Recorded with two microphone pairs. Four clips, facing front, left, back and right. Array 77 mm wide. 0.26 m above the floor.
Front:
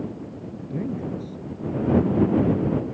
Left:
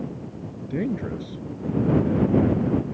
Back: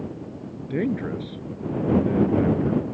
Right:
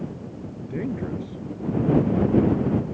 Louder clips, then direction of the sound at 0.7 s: Left 2 dB, back 4 dB; 170° left.